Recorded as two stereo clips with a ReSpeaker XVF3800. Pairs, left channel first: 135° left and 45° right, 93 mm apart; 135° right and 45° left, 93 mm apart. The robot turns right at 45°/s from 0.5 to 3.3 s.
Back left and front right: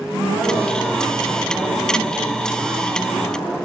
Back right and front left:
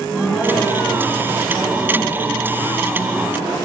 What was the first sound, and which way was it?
A woman speaking, 50° right.